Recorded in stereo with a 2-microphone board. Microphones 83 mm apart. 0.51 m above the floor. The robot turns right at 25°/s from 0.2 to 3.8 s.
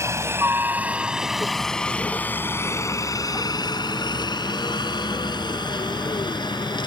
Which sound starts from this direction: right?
A helicopter, at 0.0 s.